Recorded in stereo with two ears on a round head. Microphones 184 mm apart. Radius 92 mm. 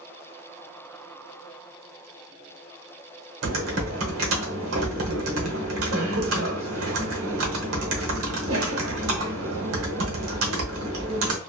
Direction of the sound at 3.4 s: 70° right (ahead or behind).